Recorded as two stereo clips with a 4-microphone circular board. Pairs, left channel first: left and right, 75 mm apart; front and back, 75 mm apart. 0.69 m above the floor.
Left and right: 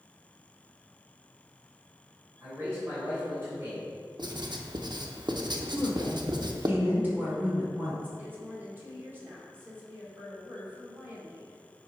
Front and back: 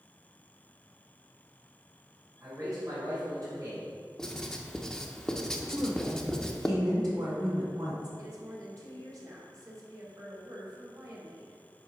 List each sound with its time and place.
2.4 s a man speaking: 145° right, 3 m
4.2 s writing: 85° right, 0.7 m
5.7 s a woman speaking: 155° right, 2.5 m
8.2 s a woman speaking: 150° right, 2 m